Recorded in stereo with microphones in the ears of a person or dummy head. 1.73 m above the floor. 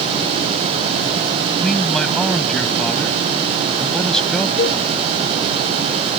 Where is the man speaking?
Centre (ahead or behind).